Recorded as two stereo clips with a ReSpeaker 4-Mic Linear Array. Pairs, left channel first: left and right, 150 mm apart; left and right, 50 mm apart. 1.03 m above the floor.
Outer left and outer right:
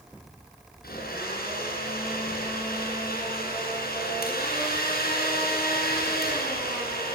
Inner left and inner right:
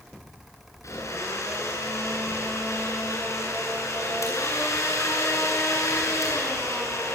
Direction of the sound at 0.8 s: 75° left (ahead or behind).